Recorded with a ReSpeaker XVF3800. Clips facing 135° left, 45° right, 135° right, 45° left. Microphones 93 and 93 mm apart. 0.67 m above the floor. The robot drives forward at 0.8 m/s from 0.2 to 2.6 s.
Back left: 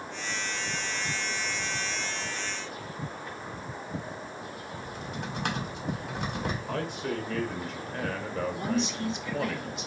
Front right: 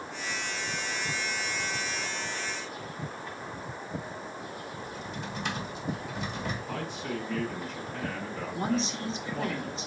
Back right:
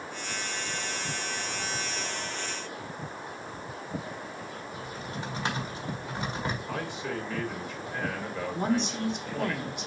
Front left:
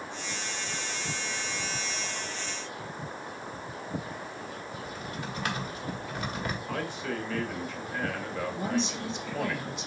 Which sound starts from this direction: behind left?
A man speaking, at 6.7 s.